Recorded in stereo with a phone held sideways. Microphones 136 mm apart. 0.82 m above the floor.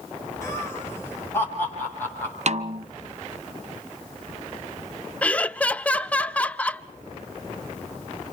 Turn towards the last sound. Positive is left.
turn(degrees=10)  # may be behind; listen again after turning